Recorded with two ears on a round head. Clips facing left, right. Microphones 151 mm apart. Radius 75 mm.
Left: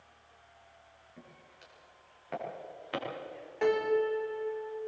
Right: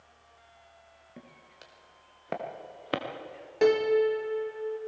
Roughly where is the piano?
Right.